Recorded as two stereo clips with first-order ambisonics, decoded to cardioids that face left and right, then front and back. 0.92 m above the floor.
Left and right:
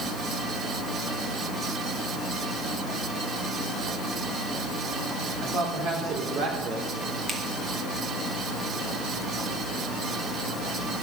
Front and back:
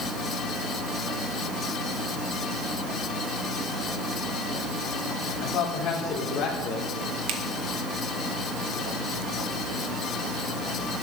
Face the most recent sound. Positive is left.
turn(degrees=-170)